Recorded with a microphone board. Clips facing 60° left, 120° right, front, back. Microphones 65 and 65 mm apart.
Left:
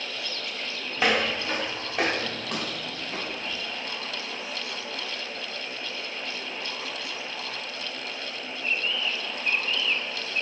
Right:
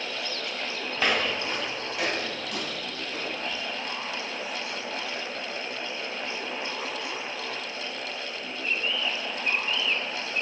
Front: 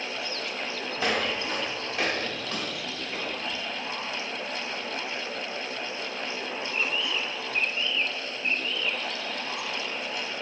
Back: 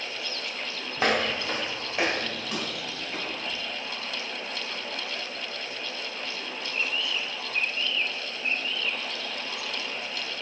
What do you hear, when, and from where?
1.0 s footsteps: 145° left, 1.2 m; by 3.6 s 90° left, 3 m